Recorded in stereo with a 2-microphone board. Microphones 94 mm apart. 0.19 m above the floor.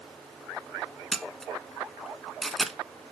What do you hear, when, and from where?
1.1 s a camera shutter: centre (ahead or behind), 0.9 m